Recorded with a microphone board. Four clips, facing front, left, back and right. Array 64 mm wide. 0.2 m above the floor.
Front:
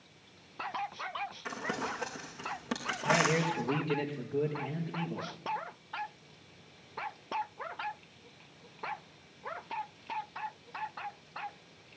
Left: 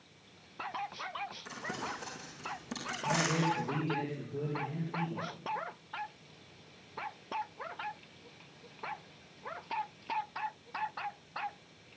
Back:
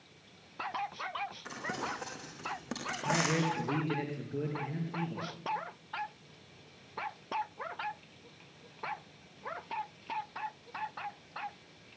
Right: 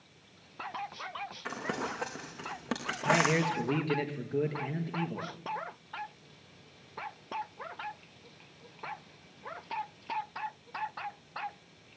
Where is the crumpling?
80° right, 4.5 m.